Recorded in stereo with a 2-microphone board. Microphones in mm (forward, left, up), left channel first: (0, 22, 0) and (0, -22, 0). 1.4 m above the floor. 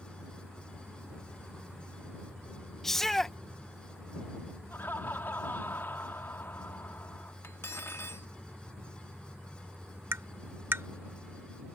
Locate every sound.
2.8 s a shout: 10° left (ahead or behind)
4.7 s laughter: 55° left (ahead or behind)
7.4 s cutlery clinking: 65° left (ahead or behind)
10.1 s tapping: 60° right (ahead or behind)